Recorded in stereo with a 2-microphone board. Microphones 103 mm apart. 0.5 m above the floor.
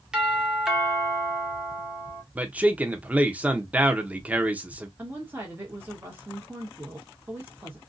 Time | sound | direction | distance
0.1 | a doorbell | 5° right (ahead or behind) | 1.3 m
2.4 | a man speaking | 15° right (ahead or behind) | 0.7 m
5.0 | a woman speaking | 20° right (ahead or behind) | 1.3 m